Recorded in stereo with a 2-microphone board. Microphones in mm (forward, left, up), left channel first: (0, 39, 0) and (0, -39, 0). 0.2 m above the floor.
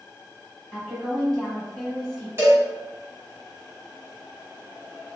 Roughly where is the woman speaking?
Centre.